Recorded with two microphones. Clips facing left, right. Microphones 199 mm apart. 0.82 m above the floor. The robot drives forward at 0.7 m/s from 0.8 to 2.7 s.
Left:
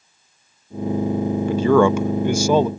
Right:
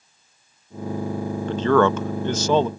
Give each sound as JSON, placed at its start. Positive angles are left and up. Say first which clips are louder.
{"t": 1.5, "sound": "a man speaking", "louder": "left 3 dB", "side_deg": 10}